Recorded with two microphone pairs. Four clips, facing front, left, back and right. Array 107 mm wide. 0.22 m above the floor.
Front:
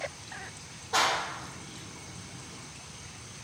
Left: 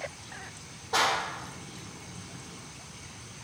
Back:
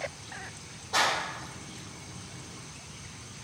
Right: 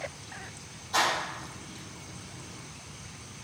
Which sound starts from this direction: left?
A clap, at 0.9 s.